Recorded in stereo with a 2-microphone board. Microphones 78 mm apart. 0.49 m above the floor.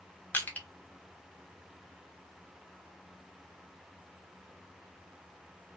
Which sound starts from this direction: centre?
Crushing, at 0.3 s.